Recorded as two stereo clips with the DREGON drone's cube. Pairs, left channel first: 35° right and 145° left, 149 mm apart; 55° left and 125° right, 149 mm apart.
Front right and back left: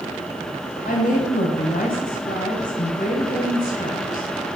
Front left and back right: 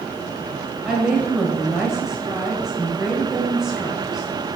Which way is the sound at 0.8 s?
40° right.